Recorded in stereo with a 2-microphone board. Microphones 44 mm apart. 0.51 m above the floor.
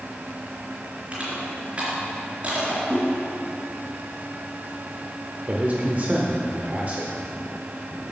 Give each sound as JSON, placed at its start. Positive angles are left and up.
{"t": 1.1, "sound": "crushing", "side_deg": -35, "distance_m": 4.0}
{"t": 2.9, "sound": "a whoosh", "side_deg": -45, "distance_m": 4.0}
{"t": 5.5, "sound": "a man speaking", "side_deg": -40, "distance_m": 1.1}